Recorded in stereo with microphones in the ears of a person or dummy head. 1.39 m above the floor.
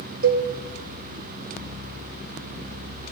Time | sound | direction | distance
0.2 | a cowbell | 55° right (ahead or behind) | 0.7 m